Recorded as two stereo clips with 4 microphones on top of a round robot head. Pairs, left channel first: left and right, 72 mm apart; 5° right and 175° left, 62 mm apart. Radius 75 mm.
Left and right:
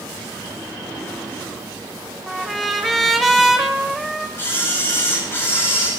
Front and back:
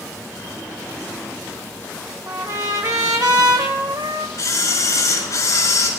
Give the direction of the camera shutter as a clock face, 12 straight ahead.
11 o'clock.